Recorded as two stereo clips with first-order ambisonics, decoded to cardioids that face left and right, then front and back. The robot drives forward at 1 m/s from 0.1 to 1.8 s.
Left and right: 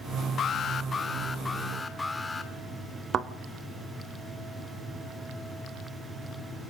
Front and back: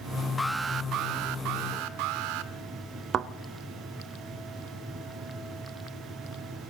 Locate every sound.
0.4 s an alarm: 65° left, 0.5 m; by 2.5 s 170° left, 1.4 m
3.1 s a thud: 135° right, 0.7 m